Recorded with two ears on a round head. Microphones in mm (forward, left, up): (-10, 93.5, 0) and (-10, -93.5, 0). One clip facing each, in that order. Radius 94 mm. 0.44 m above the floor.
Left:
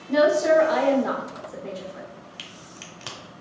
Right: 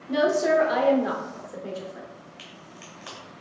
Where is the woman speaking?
10° right (ahead or behind), 0.8 m.